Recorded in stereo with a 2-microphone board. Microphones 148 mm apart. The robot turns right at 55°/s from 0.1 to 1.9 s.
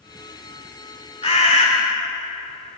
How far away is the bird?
About 1.6 m.